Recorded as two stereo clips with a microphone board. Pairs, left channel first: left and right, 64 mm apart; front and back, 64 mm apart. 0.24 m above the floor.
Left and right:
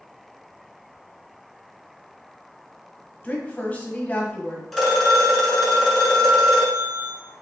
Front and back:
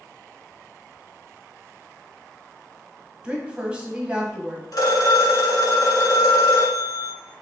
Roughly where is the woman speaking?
Behind left.